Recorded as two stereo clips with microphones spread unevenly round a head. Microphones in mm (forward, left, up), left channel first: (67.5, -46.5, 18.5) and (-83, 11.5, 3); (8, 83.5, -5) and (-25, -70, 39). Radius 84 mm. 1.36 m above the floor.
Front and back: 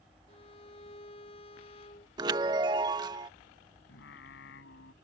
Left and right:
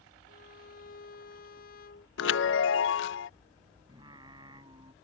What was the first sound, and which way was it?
A violin, 40° left.